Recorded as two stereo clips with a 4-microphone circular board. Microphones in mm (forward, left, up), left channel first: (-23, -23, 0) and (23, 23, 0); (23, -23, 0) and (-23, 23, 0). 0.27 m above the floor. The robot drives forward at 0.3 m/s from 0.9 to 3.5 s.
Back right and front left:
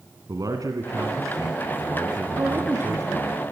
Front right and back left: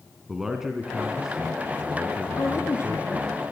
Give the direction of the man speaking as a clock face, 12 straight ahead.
10 o'clock.